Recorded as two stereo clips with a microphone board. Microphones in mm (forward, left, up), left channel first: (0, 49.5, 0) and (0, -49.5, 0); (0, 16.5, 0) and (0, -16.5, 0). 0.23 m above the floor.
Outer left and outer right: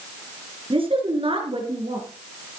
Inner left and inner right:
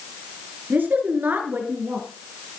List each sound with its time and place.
0.7 s a woman speaking: 65° right (ahead or behind), 3 m